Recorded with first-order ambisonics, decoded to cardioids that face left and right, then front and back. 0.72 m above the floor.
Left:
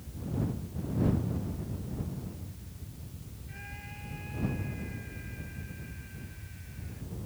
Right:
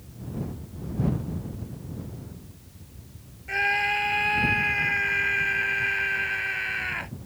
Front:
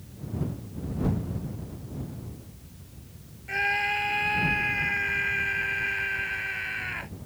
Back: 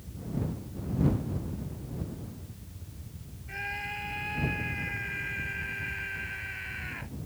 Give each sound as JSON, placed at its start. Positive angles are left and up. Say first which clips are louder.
{"t": 3.5, "sound": "a scream", "louder": "right 23 dB, front 10 dB", "azimuth_deg": -60}